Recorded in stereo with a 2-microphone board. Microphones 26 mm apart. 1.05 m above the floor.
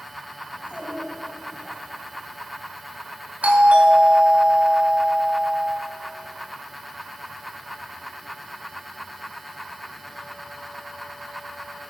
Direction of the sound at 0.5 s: 30° right (ahead or behind).